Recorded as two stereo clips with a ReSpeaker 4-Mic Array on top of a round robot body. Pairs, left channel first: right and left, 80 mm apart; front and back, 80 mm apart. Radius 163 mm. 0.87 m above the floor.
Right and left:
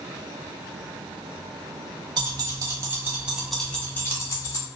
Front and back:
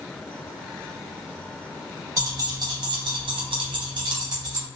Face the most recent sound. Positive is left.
turn(degrees=-135)